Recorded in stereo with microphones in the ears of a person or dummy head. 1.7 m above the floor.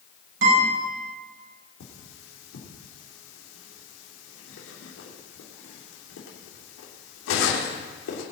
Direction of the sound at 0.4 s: 70° right (ahead or behind).